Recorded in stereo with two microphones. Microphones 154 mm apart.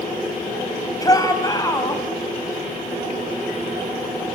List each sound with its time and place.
1.0 s a shout: 25° left (ahead or behind), 3.5 m